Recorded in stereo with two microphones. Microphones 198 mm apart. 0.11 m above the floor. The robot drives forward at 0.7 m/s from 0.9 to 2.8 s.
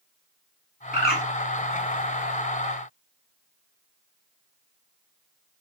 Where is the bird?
55° left (ahead or behind), 0.9 m; by 1.2 s 50° left (ahead or behind), 0.9 m.